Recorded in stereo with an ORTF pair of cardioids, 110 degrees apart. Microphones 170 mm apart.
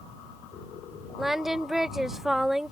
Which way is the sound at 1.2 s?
Straight ahead.